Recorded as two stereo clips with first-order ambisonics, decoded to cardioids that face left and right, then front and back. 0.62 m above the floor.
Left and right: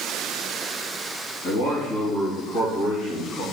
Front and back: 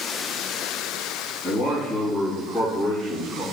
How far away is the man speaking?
About 3 m.